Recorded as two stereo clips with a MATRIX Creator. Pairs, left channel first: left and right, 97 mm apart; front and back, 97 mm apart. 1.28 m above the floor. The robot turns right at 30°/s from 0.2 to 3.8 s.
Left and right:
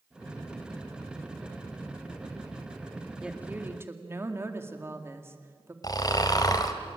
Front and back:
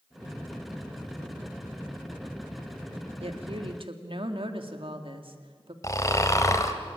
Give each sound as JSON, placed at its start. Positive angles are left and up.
{"t": 3.2, "sound": "a woman speaking", "azimuth_deg": -170, "distance_m": 2.0}
{"t": 5.8, "sound": "snoring", "azimuth_deg": 50, "distance_m": 1.7}